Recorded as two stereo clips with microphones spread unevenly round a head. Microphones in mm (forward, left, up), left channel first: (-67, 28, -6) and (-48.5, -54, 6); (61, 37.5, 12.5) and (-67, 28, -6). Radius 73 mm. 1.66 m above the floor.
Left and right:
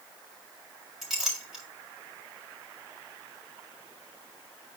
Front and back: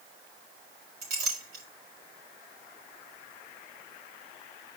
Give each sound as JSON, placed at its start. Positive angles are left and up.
{"t": 1.0, "sound": "a clink", "azimuth_deg": -160, "distance_m": 5.0}